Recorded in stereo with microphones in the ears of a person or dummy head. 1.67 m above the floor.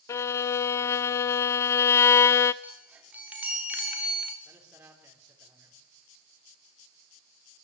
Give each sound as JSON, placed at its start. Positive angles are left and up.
{"t": 0.1, "sound": "a violin", "side_deg": 15, "distance_m": 0.5}
{"t": 2.6, "sound": "a chime", "side_deg": -10, "distance_m": 3.0}
{"t": 4.5, "sound": "a man speaking", "side_deg": -10, "distance_m": 5.5}